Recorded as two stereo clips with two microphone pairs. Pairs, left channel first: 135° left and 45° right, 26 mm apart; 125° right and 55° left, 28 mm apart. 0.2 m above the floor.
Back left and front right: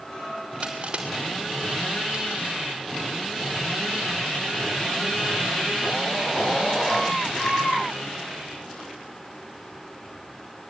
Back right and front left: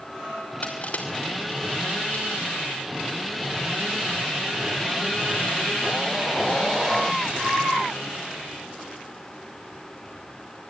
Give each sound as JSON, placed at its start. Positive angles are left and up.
{"t": 0.6, "sound": "crushing", "azimuth_deg": -90, "distance_m": 5.0}